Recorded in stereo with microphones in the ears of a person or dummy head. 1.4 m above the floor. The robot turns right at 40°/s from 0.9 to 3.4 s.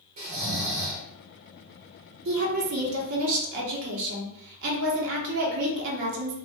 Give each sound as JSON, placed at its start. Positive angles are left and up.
{"t": 0.2, "sound": "snoring", "side_deg": -40, "distance_m": 0.9}
{"t": 2.2, "sound": "a woman speaking", "azimuth_deg": -120, "distance_m": 0.9}